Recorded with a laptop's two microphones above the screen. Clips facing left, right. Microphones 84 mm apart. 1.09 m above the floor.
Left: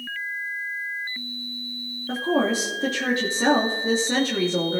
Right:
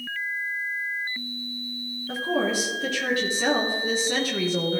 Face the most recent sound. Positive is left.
turn(degrees=35)  # may be behind; listen again after turning